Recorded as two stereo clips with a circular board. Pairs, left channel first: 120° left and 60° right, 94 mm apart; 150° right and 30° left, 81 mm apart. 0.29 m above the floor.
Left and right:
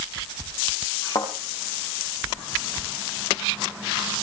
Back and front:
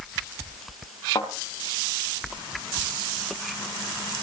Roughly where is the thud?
Behind.